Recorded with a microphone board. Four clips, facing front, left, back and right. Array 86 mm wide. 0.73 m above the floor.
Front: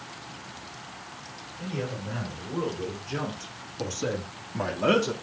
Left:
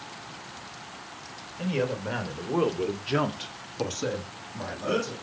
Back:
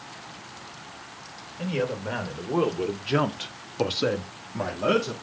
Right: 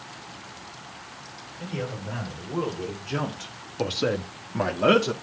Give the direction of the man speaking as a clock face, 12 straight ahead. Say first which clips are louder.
Left 5 dB, back 6 dB; 7 o'clock.